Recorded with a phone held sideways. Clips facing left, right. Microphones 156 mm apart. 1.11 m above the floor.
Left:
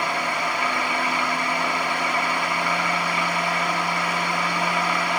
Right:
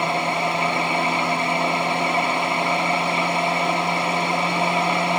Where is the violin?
I don't hear a violin.